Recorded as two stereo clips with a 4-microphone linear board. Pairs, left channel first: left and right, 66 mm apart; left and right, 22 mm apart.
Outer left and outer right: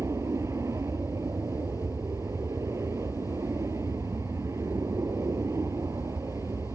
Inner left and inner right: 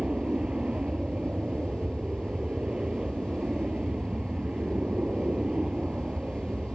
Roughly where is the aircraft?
Right.